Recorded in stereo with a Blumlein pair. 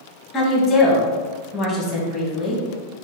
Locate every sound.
0.3 s a woman speaking: 15° left, 1.5 m